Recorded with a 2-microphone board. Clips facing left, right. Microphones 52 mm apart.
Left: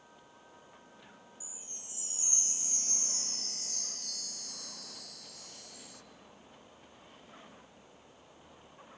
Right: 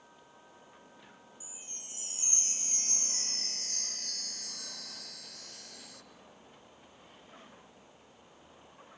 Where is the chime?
60° right (ahead or behind), 1.8 m.